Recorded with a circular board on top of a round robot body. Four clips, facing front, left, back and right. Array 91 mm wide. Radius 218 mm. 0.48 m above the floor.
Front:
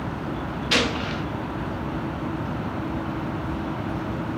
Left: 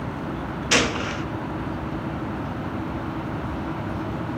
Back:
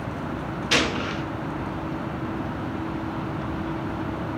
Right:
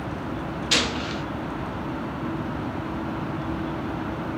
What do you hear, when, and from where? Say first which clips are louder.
0.7 s a gunshot: left 5 dB, even; 105° left, 1.1 m